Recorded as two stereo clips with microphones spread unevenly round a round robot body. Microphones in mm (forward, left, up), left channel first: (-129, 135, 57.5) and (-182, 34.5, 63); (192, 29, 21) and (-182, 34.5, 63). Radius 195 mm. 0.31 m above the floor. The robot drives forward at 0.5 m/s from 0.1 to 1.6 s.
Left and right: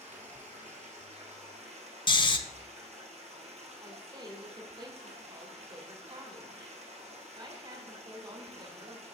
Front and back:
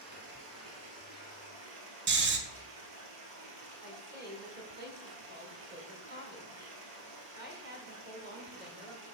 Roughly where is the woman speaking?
Behind right.